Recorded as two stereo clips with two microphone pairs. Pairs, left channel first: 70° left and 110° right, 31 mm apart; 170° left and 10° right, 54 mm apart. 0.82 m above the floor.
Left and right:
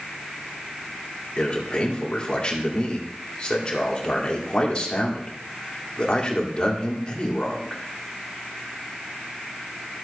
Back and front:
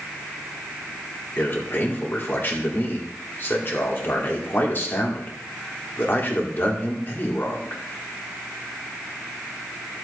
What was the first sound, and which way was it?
A man speaking, 125° left.